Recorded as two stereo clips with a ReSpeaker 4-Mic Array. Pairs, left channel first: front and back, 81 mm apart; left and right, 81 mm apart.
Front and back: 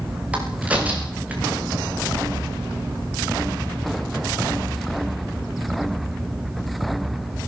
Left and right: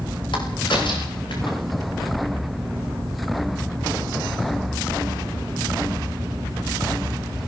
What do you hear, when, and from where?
0.3 s a crack: 105° left, 8 m